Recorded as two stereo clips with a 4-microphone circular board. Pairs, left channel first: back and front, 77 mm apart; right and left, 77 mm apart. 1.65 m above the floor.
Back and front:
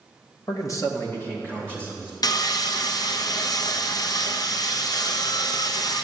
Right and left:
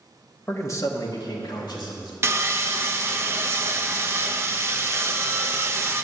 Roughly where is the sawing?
Behind left.